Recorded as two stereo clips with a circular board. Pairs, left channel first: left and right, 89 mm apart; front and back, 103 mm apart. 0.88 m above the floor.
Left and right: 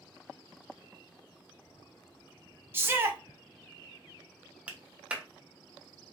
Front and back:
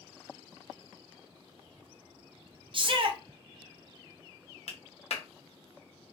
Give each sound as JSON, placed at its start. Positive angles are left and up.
{"t": 2.7, "sound": "a shout", "azimuth_deg": -155, "distance_m": 0.6}
{"t": 4.7, "sound": "a clap", "azimuth_deg": -15, "distance_m": 0.6}